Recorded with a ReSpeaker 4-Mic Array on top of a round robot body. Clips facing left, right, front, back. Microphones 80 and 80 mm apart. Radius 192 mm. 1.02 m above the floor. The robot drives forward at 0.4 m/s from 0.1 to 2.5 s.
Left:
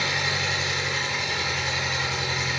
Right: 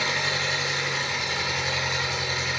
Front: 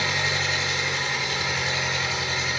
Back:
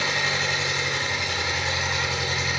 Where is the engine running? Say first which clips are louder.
Even, even; 155° right, 1.4 m; by 2.6 s 165° right, 2.5 m.